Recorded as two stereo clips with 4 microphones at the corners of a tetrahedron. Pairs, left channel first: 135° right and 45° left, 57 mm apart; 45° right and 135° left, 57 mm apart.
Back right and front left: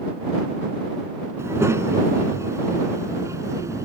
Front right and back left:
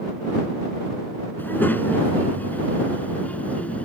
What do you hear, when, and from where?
1.4 s a child speaking: 10° left; by 3.9 s 20° left